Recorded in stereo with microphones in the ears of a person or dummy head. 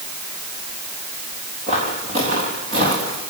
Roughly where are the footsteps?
Right.